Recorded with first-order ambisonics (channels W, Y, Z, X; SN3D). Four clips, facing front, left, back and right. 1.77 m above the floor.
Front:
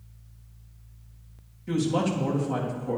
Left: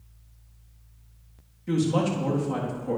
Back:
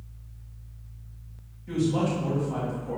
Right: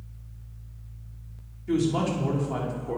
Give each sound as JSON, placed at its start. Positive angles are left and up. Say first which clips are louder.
{"t": 1.7, "sound": "a woman speaking", "louder": "left 1 dB, even", "azimuth_deg": 65, "distance_m": 3.5}